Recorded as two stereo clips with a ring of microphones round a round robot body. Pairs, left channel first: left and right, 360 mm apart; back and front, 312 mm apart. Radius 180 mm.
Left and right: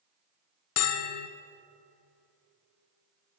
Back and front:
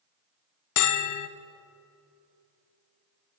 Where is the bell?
145° left, 0.7 m.